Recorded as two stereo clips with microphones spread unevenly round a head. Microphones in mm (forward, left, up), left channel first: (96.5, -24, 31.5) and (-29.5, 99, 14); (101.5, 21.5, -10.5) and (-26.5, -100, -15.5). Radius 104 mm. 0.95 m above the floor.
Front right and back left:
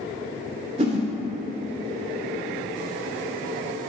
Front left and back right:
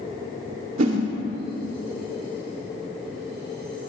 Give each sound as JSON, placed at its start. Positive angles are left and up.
{"t": 0.8, "sound": "a whoosh", "azimuth_deg": -165, "distance_m": 2.5}